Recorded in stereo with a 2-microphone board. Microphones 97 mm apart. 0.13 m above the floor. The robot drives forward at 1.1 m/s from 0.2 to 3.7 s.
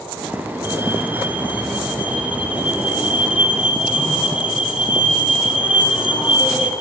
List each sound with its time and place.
0.6 s a fire alarm: 20° right (ahead or behind), 3.5 m; by 6.7 s 10° right (ahead or behind), 6 m